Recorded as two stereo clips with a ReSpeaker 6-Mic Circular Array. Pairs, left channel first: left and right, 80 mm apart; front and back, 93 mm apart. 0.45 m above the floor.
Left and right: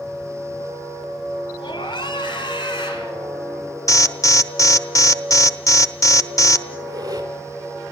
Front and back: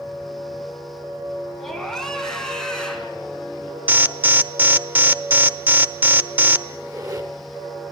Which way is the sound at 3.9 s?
115° left.